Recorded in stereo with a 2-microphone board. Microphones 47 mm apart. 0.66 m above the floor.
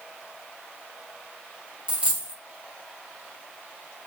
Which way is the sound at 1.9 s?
30° right (ahead or behind).